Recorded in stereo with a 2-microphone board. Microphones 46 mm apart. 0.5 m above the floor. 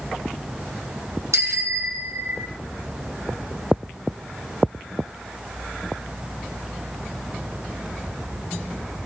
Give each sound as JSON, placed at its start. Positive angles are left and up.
{"t": 1.3, "sound": "a bicycle bell", "side_deg": -85, "distance_m": 3.5}